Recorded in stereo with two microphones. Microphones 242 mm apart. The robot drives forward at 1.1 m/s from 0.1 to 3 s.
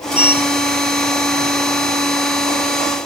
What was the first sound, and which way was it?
A sliding door, 70° left (ahead or behind).